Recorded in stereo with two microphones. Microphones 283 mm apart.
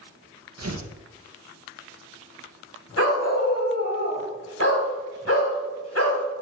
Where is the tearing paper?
60° right (ahead or behind), 1.2 m.